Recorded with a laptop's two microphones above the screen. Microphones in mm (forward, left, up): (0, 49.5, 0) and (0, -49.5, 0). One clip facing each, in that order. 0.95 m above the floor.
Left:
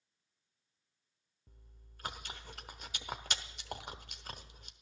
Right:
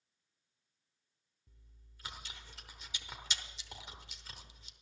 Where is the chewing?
50° left (ahead or behind), 0.9 m.